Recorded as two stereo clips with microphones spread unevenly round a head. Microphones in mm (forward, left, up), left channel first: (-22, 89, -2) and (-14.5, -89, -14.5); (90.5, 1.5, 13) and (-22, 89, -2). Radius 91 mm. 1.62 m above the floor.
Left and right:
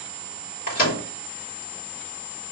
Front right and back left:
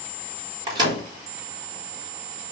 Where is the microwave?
85° left, 4.5 m.